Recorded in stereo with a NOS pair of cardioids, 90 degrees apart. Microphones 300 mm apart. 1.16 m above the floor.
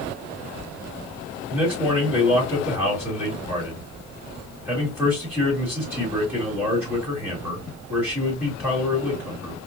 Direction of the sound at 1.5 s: 5° right.